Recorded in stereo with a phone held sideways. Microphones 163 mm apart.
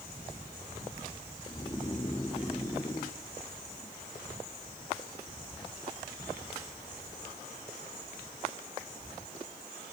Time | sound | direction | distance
1.5 | snoring | 20° left (ahead or behind) | 1.2 m